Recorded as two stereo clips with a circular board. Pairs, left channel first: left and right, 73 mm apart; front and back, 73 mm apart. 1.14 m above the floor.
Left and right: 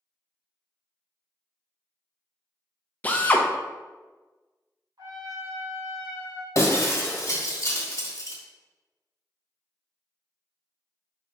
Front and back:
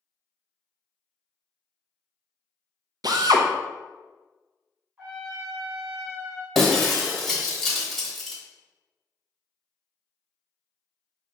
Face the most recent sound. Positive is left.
turn(degrees=90)